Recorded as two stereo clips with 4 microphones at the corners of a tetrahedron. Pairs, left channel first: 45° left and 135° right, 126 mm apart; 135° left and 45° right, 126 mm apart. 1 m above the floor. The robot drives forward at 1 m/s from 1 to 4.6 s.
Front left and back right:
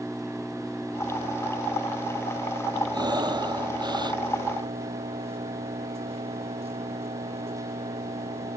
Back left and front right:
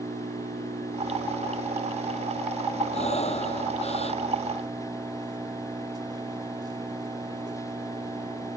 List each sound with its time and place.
0.0 s an engine running: 50° right; by 8.6 s 100° right
2.9 s breathing: 170° left